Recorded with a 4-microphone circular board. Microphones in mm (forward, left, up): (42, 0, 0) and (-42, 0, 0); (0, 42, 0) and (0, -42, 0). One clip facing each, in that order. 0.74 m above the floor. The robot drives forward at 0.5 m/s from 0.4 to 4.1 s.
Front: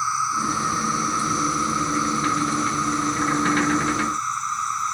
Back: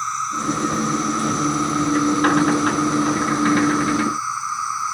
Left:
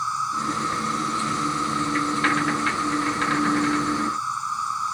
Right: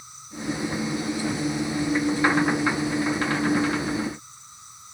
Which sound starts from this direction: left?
An insect, at 0.0 s.